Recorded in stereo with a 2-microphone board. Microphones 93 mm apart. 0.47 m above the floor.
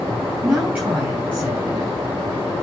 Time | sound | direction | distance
0.4 | a woman speaking | 15° right (ahead or behind) | 4 m